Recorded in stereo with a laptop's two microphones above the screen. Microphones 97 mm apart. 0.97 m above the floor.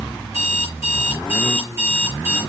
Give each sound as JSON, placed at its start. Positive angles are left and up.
{"t": 0.2, "sound": "an alarm clock", "side_deg": -25, "distance_m": 8.5}